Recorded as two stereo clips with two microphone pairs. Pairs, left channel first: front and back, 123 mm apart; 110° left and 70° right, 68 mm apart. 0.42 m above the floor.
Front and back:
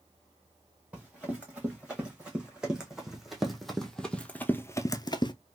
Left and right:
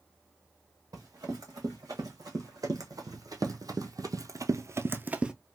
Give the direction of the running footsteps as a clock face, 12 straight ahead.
3 o'clock.